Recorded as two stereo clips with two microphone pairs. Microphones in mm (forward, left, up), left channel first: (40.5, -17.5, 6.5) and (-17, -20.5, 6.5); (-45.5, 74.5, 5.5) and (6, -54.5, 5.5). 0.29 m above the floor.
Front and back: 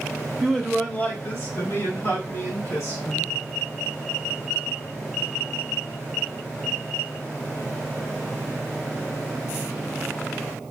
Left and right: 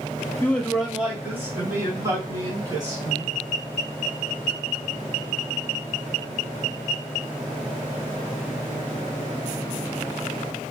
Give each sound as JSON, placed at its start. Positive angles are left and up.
{"t": 0.4, "sound": "a man speaking", "azimuth_deg": 85, "distance_m": 0.9}